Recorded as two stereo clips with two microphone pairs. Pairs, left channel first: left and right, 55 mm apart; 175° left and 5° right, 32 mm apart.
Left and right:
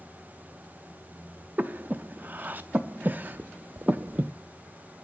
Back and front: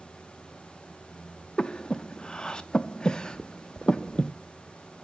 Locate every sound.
1.6 s breathing: 140° right, 0.5 m